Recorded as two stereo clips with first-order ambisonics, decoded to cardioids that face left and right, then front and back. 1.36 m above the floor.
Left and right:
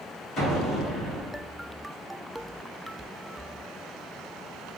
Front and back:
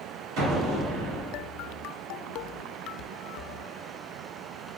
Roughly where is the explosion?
Behind.